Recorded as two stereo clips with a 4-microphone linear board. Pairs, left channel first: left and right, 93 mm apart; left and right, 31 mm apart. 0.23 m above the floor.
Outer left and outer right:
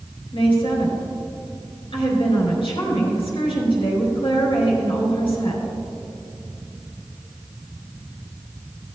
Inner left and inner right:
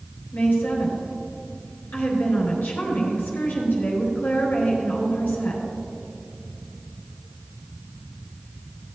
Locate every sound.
0.3 s a woman speaking: 70° left (ahead or behind), 3.5 m